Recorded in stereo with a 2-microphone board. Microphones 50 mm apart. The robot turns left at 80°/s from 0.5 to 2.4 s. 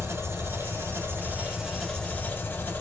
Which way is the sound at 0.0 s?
75° right.